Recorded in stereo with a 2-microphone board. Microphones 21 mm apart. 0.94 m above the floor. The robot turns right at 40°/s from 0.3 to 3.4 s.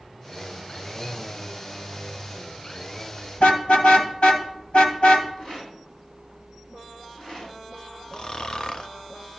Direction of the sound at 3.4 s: 70° left (ahead or behind).